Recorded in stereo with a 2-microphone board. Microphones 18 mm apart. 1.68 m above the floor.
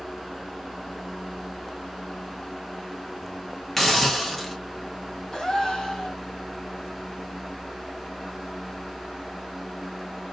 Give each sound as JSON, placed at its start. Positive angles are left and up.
{"t": 3.8, "sound": "a hiss", "side_deg": 10, "distance_m": 1.1}
{"t": 5.3, "sound": "a gasp", "side_deg": 40, "distance_m": 2.5}